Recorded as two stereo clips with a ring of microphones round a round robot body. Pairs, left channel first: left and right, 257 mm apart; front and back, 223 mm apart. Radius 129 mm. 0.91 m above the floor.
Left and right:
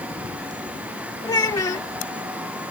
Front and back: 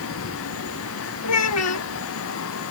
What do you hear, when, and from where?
1.2 s a child speaking: 15° left